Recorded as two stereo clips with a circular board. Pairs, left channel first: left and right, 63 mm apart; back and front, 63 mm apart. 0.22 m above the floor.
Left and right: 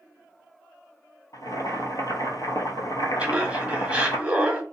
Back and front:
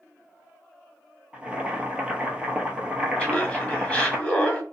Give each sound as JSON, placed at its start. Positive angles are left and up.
{"t": 1.3, "sound": "boiling", "azimuth_deg": 75, "distance_m": 0.8}
{"t": 3.2, "sound": "laughter", "azimuth_deg": -135, "distance_m": 1.2}